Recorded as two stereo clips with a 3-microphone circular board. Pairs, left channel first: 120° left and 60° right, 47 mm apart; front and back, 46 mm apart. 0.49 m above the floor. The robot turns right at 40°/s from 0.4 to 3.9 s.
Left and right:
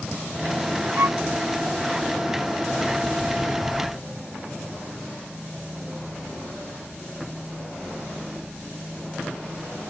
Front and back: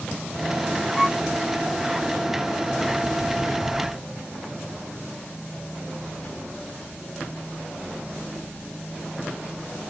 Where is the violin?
90° right; by 1.2 s 85° right.